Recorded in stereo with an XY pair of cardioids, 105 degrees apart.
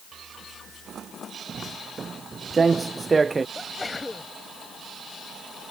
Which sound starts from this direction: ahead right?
Footsteps, at 1.5 s.